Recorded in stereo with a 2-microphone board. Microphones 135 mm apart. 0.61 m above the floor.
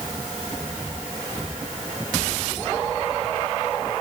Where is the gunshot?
No gunshot in this recording.